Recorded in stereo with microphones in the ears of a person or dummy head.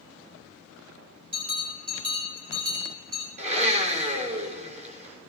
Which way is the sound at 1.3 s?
30° right (ahead or behind).